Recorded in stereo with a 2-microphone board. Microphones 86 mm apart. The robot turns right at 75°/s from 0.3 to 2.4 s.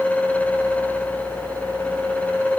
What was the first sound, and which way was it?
Only background noise.